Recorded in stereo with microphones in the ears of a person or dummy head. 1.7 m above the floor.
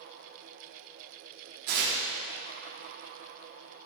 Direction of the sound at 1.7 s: 50° right (ahead or behind).